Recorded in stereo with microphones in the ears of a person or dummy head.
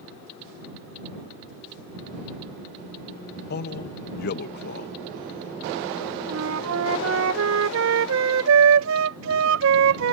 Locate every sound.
3.5 s a man speaking: 55° left (ahead or behind)
6.3 s a flute: 65° right (ahead or behind)